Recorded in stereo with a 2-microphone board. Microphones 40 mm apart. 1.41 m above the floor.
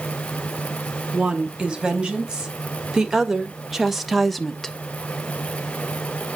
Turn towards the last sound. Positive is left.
turn(degrees=10)  # may be behind; listen again after turning